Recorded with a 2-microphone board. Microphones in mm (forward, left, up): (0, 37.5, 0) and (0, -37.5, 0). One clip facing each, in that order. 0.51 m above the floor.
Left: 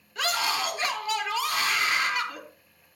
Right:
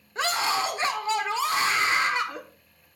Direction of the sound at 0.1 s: 30° right (ahead or behind).